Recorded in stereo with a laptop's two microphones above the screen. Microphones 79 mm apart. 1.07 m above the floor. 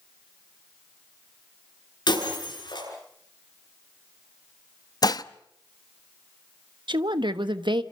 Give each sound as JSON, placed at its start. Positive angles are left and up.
{"t": 2.1, "sound": "breaking glass", "side_deg": 65, "distance_m": 8.5}
{"t": 5.0, "sound": "dishes clattering", "side_deg": 55, "distance_m": 0.7}
{"t": 6.9, "sound": "a woman speaking", "side_deg": -75, "distance_m": 1.2}